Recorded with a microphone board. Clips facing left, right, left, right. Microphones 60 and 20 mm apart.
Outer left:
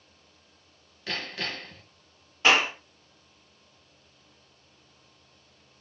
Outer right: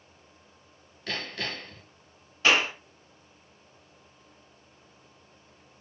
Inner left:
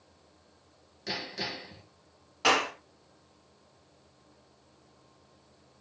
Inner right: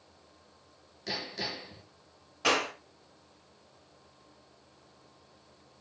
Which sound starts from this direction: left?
A clap, at 2.4 s.